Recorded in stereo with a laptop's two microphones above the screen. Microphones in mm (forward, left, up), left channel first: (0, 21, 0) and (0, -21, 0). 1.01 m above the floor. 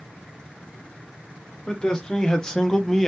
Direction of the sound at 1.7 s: 15° left (ahead or behind).